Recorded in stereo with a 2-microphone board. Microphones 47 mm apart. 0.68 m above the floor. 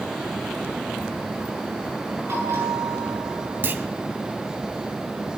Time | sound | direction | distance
2.3 | a bell | 85° right | 9 m
3.6 | a clunk | 45° right (ahead or behind) | 1.4 m